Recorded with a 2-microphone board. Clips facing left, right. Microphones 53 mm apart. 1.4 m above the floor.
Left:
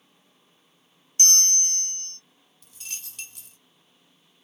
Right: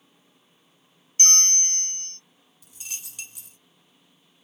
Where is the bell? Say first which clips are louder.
Right 1 dB; 35° right (ahead or behind), 0.5 m.